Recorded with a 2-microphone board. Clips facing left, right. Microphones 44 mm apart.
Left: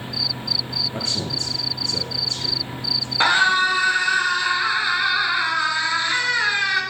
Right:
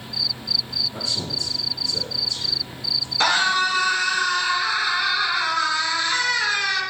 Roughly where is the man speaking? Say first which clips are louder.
Left 2 dB; left.